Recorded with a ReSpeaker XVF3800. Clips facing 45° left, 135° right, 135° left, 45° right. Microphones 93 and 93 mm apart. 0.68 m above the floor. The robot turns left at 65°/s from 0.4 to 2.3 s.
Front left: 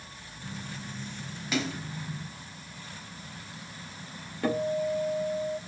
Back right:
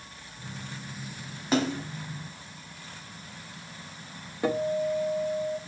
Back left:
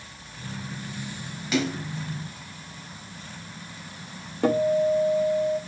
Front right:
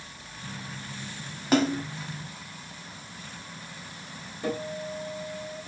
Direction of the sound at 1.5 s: 85° right.